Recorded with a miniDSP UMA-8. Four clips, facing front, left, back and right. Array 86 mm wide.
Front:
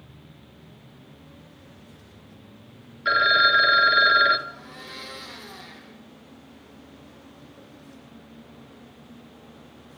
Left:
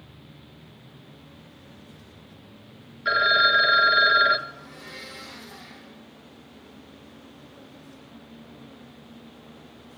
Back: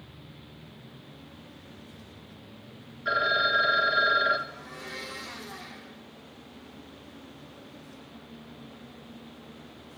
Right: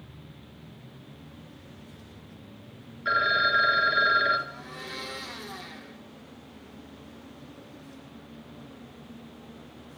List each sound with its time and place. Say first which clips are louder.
3.0 s a phone ringing: left 4 dB, front 6 dB; 25° left, 1.4 m
4.5 s a blender: right 2 dB, even; 55° right, 4.5 m